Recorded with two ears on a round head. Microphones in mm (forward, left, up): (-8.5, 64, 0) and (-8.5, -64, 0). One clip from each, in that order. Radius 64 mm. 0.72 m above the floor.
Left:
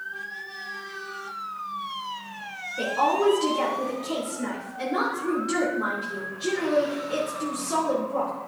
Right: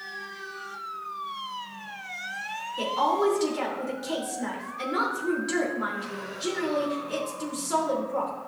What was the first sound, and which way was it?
A woman speaking, 25° right (ahead or behind).